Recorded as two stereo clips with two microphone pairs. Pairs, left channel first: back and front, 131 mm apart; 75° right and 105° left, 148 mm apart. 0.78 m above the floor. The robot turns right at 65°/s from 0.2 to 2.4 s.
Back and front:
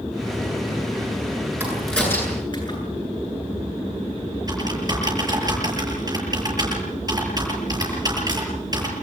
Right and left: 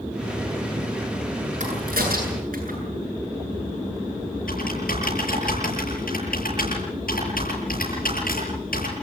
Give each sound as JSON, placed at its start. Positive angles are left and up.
{"t": 1.6, "sound": "a crack", "azimuth_deg": 75, "distance_m": 9.0}
{"t": 4.5, "sound": "typing on a keyboard", "azimuth_deg": -60, "distance_m": 8.5}